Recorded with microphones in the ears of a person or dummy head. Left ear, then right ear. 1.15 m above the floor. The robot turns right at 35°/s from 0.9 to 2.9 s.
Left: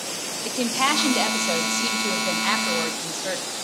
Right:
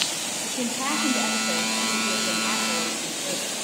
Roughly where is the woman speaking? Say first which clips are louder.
Left 8 dB; ahead left.